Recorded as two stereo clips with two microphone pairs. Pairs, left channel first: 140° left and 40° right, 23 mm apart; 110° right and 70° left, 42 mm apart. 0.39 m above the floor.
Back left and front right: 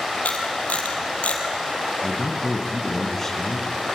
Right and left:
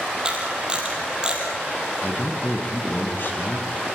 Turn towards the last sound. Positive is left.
turn(degrees=-145)